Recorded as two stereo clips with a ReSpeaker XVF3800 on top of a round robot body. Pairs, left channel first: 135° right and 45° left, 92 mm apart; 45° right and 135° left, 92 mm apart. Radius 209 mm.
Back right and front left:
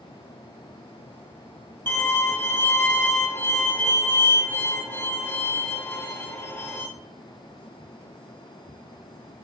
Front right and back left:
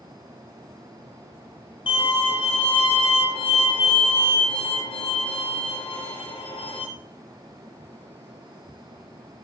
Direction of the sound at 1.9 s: 70° right.